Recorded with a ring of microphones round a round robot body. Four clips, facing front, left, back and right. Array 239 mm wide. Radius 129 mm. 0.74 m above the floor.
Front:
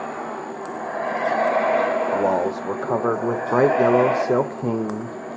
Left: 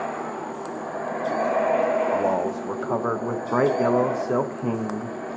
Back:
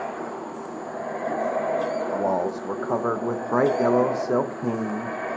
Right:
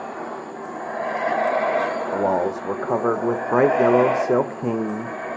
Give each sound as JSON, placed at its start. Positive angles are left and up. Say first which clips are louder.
{"t": 2.1, "sound": "a man speaking", "louder": "right 2 dB, front 4 dB", "azimuth_deg": -55, "distance_m": 0.6}